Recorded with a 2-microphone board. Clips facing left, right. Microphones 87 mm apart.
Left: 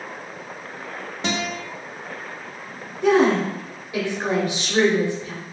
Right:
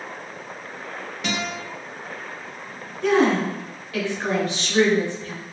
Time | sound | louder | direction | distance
1.2 | a guitar | left 2 dB | 35° left (ahead or behind) | 0.5 m
3.0 | a woman speaking | left 2 dB | 20° left (ahead or behind) | 0.8 m